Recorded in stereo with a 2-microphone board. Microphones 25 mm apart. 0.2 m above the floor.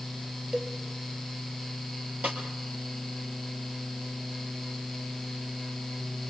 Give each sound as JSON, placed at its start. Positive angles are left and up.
{"t": 0.5, "sound": "a cowbell", "side_deg": -40, "distance_m": 2.5}
{"t": 2.2, "sound": "a snare drum", "side_deg": -65, "distance_m": 4.5}